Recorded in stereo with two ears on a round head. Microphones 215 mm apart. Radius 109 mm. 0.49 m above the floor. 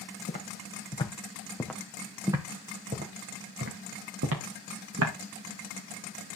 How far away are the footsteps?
About 2.0 m.